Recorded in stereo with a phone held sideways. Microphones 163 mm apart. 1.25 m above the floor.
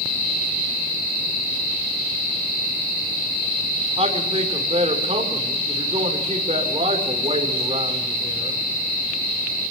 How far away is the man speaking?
About 5 m.